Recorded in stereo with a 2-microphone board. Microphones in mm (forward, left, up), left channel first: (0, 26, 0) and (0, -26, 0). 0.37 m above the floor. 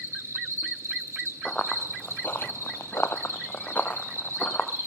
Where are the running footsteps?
15° left (ahead or behind), 0.9 m; by 4.7 s 30° left (ahead or behind), 1.6 m.